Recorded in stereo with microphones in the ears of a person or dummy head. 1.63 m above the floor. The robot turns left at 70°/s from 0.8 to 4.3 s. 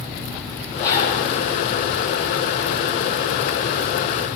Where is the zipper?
10° left (ahead or behind), 9 m; by 1.2 s 40° left (ahead or behind), 9 m.